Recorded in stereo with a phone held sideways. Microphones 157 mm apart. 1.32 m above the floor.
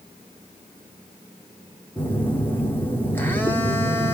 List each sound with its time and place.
2.0 s a phone buzzing: 10° left (ahead or behind), 1.1 m